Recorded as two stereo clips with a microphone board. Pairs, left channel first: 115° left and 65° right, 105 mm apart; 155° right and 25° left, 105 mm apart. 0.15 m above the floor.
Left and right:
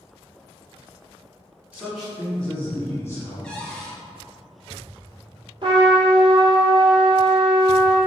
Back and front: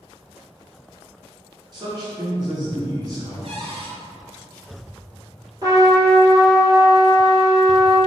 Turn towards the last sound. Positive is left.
turn(degrees=-30)